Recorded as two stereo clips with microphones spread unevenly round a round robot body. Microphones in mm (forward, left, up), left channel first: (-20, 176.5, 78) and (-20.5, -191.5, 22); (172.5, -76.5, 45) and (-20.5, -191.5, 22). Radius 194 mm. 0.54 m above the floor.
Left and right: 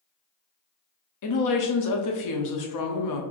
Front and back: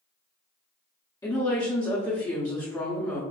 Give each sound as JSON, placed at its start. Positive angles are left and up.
{"t": 1.2, "sound": "a woman speaking", "azimuth_deg": 110, "distance_m": 1.0}